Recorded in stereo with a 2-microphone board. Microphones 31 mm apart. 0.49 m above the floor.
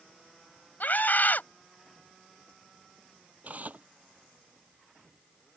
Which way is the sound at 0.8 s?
70° left (ahead or behind).